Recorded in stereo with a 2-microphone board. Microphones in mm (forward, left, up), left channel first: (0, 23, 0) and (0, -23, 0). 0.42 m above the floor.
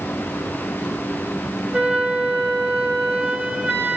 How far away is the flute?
About 2 m.